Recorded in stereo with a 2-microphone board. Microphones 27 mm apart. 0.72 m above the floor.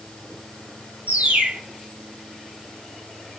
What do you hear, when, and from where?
1.1 s a bird: 70° right (ahead or behind), 1.1 m